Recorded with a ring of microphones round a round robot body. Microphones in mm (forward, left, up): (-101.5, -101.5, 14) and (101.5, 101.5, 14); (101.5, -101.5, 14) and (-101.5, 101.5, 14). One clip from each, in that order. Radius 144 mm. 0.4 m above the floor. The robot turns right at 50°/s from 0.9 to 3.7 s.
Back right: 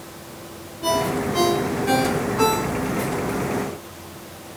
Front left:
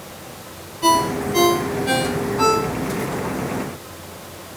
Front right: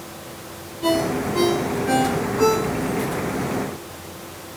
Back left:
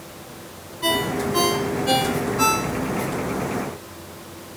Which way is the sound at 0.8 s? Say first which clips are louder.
Front left 4 dB, front right 1 dB; 75° left.